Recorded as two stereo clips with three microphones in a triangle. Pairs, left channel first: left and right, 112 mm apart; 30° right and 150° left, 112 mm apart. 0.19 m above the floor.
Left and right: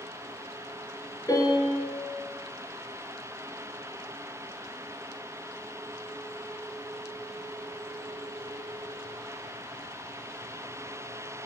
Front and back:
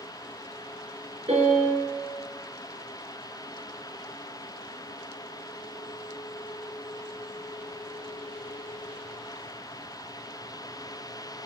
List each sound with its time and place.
1.3 s a piano: 145° left, 1.1 m